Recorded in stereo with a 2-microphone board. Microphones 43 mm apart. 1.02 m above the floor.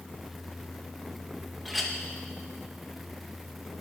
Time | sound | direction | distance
1.6 | a clink | centre (ahead or behind) | 0.5 m